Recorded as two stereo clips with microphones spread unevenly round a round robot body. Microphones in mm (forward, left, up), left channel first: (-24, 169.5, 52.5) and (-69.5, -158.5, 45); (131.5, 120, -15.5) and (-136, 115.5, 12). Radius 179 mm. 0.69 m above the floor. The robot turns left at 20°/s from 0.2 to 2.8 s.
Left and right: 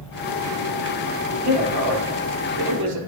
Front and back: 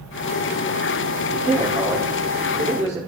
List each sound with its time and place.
1.3 s a man speaking: 80° right, 5.5 m; by 3.0 s 110° right, 5.5 m